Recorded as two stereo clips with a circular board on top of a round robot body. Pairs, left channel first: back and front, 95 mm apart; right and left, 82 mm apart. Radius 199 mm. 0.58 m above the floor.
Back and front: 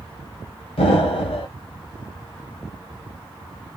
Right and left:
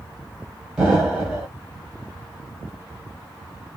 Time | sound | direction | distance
0.8 | an explosion | 170° left | 1.8 m